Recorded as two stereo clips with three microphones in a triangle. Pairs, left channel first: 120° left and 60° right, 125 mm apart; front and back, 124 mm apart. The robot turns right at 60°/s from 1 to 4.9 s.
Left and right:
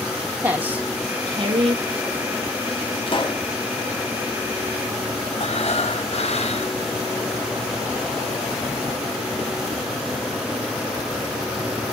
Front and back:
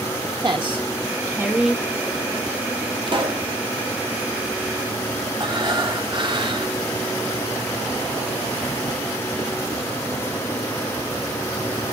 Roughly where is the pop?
Behind left.